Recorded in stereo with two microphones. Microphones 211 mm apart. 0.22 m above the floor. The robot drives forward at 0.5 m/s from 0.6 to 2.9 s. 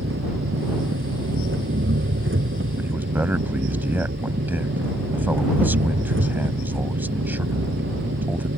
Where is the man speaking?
10° right (ahead or behind).